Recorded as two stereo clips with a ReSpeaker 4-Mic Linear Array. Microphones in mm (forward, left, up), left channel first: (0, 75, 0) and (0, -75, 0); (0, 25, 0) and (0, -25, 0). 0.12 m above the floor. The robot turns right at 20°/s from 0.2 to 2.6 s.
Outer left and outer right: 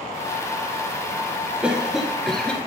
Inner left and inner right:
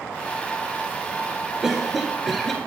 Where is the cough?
5° right (ahead or behind), 1.8 m; by 2.7 s 5° left (ahead or behind), 1.8 m.